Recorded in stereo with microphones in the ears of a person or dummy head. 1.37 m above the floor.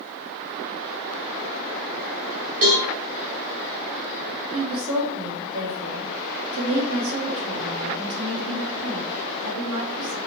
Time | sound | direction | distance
2.6 | a cowbell | 75° right (ahead or behind) | 1.8 m
4.5 | a woman speaking | 75° right (ahead or behind) | 1.0 m